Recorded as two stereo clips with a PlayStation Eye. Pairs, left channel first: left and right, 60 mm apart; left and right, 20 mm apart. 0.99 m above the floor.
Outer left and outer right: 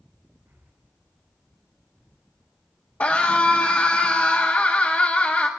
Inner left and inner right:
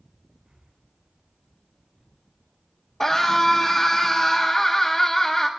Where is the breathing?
55° right (ahead or behind), 6.5 m.